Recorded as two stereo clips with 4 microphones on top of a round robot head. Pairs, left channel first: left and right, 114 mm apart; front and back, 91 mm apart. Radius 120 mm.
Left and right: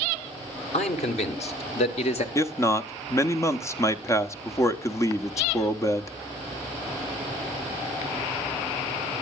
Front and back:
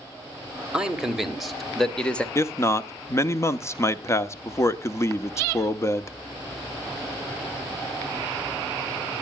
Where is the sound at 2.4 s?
40° left, 1.1 m.